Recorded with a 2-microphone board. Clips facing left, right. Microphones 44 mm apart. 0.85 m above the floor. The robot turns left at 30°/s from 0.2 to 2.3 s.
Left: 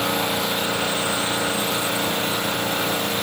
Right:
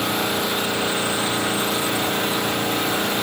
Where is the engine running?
Straight ahead, 0.8 m; by 3.2 s 60° right, 0.8 m.